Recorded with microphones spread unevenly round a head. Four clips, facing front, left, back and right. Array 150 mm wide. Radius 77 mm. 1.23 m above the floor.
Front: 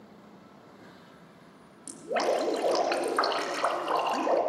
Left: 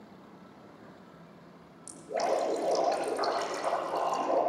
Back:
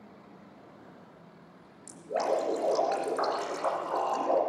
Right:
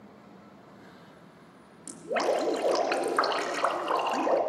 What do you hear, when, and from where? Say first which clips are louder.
1.9 s dripping: right 2 dB, front 2 dB; 45° right, 2.5 m